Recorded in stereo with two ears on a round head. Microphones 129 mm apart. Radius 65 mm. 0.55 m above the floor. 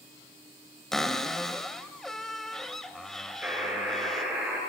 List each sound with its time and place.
0.9 s a cupboard door: 5° left (ahead or behind), 1.3 m
3.4 s a buzzer: 10° right (ahead or behind), 8.5 m